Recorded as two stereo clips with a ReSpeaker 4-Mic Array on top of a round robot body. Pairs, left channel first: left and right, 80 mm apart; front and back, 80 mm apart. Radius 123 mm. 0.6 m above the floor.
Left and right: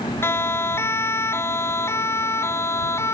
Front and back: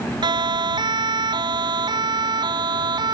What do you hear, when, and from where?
0.2 s a siren: 150° left